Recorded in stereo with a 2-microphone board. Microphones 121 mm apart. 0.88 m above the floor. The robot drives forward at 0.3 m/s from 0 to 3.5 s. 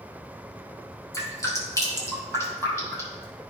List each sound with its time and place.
1.1 s dripping: 30° left (ahead or behind), 2 m; by 3.2 s 20° left (ahead or behind), 2.5 m